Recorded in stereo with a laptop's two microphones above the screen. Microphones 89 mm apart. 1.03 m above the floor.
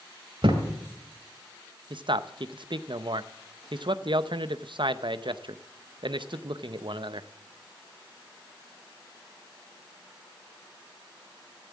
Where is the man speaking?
65° right (ahead or behind), 0.6 m.